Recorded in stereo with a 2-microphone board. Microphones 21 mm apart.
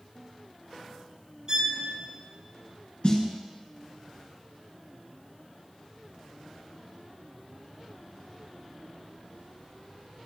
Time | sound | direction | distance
1.5 | a violin | 35° right (ahead or behind) | 1.6 m
3.0 | a snare drum | 50° left (ahead or behind) | 1.8 m